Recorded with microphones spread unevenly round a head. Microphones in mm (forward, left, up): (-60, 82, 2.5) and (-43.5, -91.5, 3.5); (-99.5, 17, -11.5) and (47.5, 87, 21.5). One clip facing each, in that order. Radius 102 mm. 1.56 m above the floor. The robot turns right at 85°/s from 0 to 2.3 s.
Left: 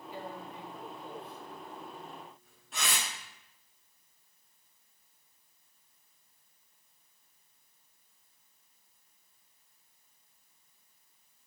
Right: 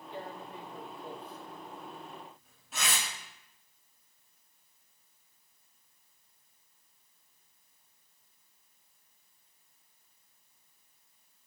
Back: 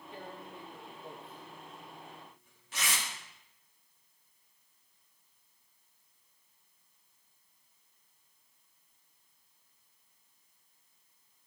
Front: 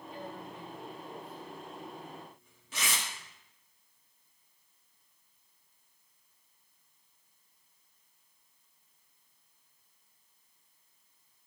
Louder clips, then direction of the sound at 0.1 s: Right 1 dB, front 2 dB; straight behind.